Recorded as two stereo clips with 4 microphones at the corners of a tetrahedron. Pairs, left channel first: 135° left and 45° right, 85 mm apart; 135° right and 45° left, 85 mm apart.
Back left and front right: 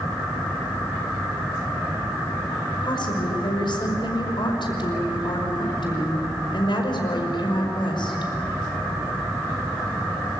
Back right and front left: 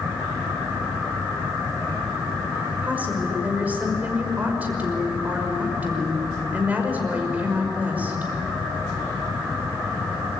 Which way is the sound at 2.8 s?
115° left.